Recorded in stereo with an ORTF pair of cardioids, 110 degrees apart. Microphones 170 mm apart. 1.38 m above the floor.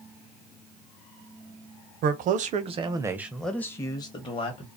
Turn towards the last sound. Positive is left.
turn(degrees=40)